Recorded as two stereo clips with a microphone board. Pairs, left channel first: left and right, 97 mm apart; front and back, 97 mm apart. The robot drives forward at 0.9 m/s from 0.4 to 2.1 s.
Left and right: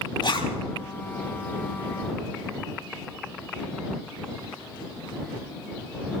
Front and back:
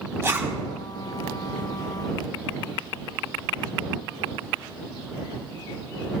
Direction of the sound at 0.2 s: 115° left.